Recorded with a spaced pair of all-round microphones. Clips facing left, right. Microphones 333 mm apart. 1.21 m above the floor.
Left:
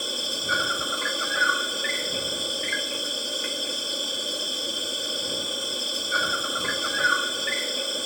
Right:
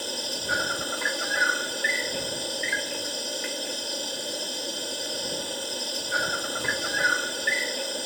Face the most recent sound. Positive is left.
turn(degrees=5)  # may be behind; listen again after turning